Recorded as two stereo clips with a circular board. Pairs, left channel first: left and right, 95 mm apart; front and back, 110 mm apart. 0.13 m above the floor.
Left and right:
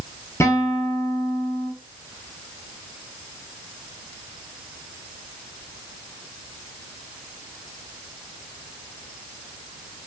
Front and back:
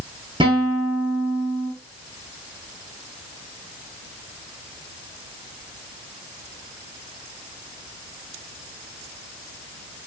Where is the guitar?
145° left, 1.1 m.